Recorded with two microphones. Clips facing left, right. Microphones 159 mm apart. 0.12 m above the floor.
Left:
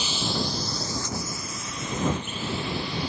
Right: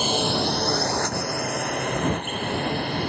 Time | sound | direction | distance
0.0 | a drone | 55° right (ahead or behind) | ?